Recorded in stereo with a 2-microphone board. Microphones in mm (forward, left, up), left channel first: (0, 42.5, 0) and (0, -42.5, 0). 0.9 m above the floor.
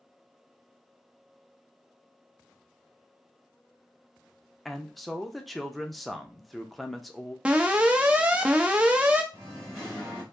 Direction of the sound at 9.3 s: 5° left (ahead or behind).